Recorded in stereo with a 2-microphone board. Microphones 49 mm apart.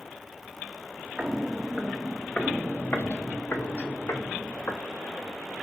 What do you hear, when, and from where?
1.2 s footsteps: 20° right (ahead or behind), 0.9 m; by 4.8 s 85° left, 1.8 m